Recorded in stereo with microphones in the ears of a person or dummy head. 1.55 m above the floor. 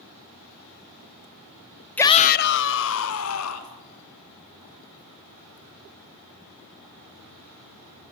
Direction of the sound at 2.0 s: 5° left (ahead or behind).